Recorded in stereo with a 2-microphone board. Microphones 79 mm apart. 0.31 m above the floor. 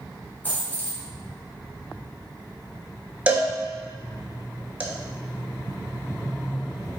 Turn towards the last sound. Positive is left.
turn(degrees=-20)  # may be behind; listen again after turning